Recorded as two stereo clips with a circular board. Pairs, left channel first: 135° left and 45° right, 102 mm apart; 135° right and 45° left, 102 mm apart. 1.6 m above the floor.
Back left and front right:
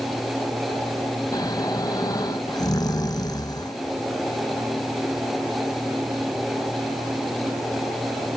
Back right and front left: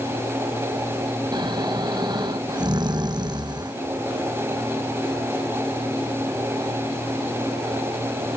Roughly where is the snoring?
Left.